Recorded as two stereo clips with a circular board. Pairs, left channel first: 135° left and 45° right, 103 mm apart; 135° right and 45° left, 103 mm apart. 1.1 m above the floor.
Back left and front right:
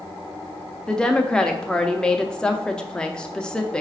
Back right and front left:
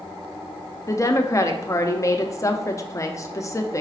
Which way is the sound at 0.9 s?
150° right.